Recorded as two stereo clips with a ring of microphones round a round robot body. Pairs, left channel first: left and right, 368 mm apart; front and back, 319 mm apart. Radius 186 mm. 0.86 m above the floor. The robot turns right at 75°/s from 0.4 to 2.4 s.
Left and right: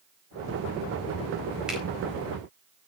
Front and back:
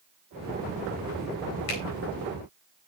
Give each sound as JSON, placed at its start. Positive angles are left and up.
{"t": 1.7, "sound": "a finger snap", "azimuth_deg": -5, "distance_m": 4.0}